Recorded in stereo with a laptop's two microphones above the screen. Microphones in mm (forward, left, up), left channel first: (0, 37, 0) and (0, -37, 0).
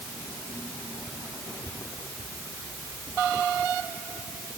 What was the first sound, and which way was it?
Only background noise.